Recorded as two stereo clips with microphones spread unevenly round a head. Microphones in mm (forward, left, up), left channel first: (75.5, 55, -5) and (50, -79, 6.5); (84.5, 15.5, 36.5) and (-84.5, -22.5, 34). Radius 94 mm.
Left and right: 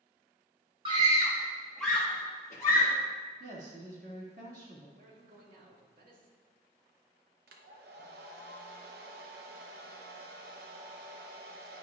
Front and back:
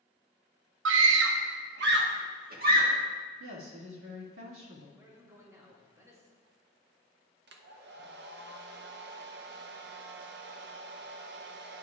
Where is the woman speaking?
155° right, 2 m.